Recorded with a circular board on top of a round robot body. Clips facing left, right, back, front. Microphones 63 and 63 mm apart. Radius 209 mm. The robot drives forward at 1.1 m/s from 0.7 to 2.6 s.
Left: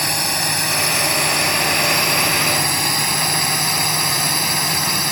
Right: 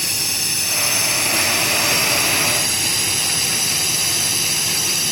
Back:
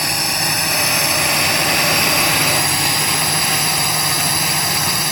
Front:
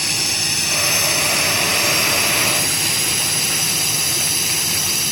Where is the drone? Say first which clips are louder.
Left 6 dB, back 4 dB; 130° left; by 5.1 s 135° left.